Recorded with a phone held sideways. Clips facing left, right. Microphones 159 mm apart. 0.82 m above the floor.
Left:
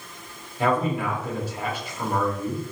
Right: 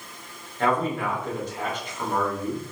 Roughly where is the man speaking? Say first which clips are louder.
Left 1 dB; centre.